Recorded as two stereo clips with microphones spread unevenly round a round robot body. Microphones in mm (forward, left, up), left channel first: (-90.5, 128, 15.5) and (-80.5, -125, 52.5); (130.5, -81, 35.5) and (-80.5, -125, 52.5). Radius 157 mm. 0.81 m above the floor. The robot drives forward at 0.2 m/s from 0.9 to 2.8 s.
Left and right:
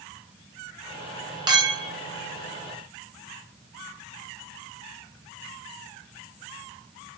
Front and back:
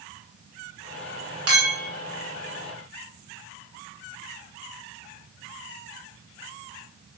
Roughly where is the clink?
Behind.